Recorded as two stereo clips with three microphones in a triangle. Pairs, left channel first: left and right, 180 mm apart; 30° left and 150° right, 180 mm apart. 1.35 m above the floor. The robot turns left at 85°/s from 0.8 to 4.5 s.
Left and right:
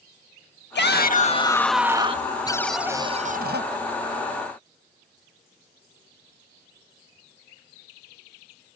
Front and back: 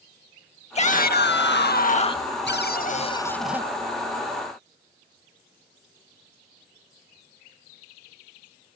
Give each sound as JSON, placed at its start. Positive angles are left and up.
{"t": 0.8, "sound": "a shout", "azimuth_deg": 80}
{"t": 2.5, "sound": "a cupboard door", "azimuth_deg": 25}